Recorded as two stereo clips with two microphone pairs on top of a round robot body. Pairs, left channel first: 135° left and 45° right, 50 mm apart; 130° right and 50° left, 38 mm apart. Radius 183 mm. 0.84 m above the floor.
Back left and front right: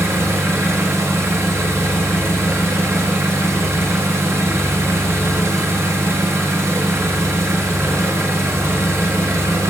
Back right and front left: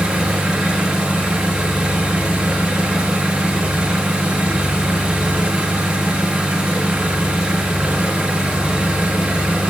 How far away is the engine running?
About 1.0 m.